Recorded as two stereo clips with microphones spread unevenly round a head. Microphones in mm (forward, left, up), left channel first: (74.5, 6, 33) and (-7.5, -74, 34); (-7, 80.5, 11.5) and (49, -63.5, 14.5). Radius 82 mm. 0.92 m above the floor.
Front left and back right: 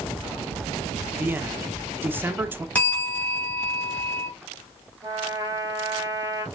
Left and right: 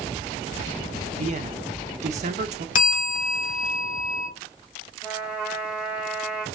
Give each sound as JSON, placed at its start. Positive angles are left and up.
{"t": 1.2, "sound": "a man speaking", "azimuth_deg": -70, "distance_m": 0.6}
{"t": 2.8, "sound": "a bell", "azimuth_deg": 125, "distance_m": 1.0}
{"t": 5.0, "sound": "a trumpet", "azimuth_deg": -150, "distance_m": 0.9}